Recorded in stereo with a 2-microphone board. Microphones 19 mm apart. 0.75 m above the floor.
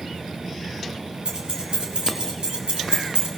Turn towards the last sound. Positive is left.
turn(degrees=-60)  # may be behind; listen again after turning